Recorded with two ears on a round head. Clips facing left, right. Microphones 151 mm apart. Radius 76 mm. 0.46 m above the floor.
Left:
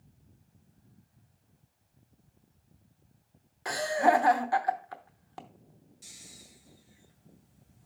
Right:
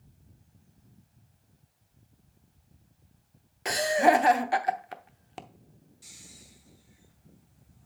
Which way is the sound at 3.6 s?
25° right (ahead or behind).